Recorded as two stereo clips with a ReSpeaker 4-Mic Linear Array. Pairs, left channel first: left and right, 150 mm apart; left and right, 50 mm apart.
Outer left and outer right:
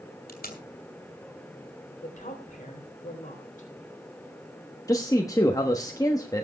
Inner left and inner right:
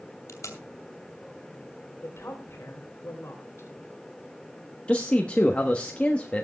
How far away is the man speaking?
About 1.1 m.